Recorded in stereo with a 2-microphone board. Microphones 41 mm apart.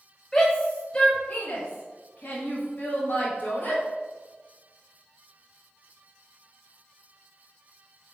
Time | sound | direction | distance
0.3 | a shout | 15° left (ahead or behind) | 1.6 m